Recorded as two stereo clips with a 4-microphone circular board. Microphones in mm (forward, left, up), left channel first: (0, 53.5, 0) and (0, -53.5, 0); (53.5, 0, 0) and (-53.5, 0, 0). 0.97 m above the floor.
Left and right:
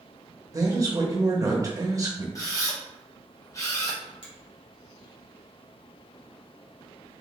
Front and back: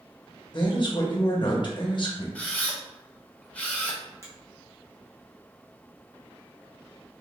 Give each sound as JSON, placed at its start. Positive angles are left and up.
{"t": 0.5, "sound": "a man speaking", "azimuth_deg": -35, "distance_m": 1.0}
{"t": 2.4, "sound": "a camera shutter", "azimuth_deg": 65, "distance_m": 0.9}
{"t": 4.2, "sound": "a finger snap", "azimuth_deg": 120, "distance_m": 1.4}